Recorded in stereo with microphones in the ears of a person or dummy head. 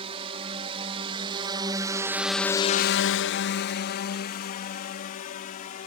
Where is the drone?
35° right (ahead or behind); by 5.9 s 50° left (ahead or behind).